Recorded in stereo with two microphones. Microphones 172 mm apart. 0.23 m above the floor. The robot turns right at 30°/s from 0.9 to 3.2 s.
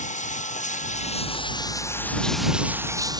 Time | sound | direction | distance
0.0 | running water | 135° left | ?